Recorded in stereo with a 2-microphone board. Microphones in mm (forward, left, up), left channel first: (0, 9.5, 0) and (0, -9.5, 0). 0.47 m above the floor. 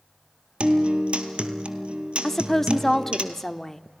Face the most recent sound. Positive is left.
turn(degrees=15)  # may be behind; listen again after turning